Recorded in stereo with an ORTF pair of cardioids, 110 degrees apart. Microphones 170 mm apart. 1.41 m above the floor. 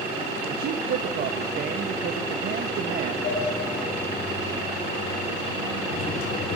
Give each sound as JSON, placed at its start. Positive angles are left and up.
{"t": 0.5, "sound": "a man speaking", "azimuth_deg": -65, "distance_m": 1.5}
{"t": 3.2, "sound": "a sliding door", "azimuth_deg": 60, "distance_m": 5.5}